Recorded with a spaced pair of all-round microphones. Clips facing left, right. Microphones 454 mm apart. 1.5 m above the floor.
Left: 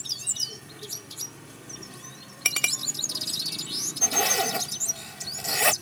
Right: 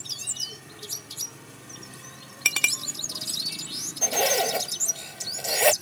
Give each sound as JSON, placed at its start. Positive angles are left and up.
{"t": 2.5, "sound": "a clink", "side_deg": -10}
{"t": 4.0, "sound": "a zipper", "side_deg": 25}